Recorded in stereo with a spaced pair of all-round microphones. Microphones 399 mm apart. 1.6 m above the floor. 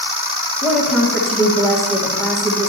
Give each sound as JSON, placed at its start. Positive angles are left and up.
{"t": 0.6, "sound": "a woman speaking", "side_deg": 0, "distance_m": 1.9}